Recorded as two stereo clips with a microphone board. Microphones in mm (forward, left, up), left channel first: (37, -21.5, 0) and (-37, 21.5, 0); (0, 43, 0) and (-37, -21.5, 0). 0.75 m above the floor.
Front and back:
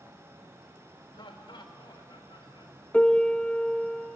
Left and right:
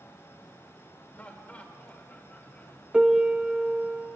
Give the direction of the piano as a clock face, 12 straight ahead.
2 o'clock.